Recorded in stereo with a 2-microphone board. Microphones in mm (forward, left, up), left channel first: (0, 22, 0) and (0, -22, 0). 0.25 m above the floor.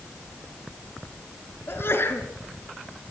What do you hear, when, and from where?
1.7 s a sneeze: 55° left (ahead or behind), 4 m